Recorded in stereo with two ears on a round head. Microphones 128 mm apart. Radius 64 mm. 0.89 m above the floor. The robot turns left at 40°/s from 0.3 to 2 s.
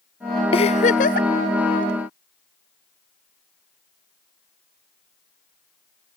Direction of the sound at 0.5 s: 140° left.